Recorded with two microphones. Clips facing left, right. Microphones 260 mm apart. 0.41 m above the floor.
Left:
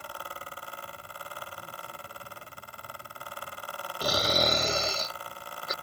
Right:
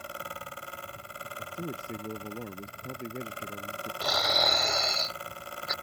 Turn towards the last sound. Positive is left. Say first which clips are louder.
# left 4 dB
turn(degrees=35)  # may be behind; listen again after turning